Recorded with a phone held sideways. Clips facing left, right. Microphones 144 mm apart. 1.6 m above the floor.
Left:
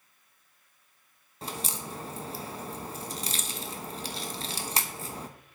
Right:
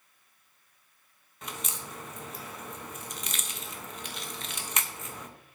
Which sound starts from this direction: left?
A crack, at 1.4 s.